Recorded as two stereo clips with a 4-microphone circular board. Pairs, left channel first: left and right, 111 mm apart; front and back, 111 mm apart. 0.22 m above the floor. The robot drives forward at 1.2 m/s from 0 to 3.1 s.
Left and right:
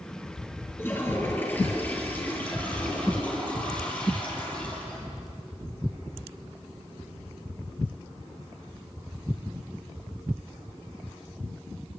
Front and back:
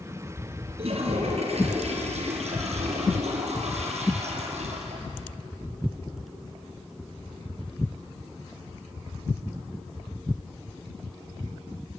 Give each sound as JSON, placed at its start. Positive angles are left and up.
{"t": 0.8, "sound": "a toilet flushing", "azimuth_deg": 155, "distance_m": 4.0}